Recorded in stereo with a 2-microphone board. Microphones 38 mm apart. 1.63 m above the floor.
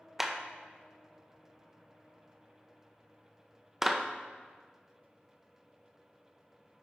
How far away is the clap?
About 0.6 m.